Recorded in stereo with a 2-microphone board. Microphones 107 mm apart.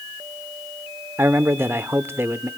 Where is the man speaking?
20° right (ahead or behind), 0.8 m.